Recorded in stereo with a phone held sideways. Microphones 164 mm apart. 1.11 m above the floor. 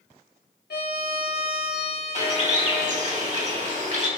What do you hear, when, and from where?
0.7 s a violin: 85° left, 1.9 m
2.1 s a bird: 45° right (ahead or behind), 2 m